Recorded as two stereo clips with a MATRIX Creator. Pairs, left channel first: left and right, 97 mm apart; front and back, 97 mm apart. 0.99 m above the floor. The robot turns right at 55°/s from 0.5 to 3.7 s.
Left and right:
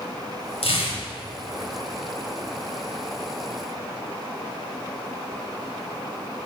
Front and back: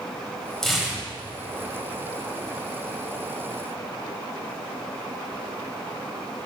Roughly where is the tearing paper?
Left.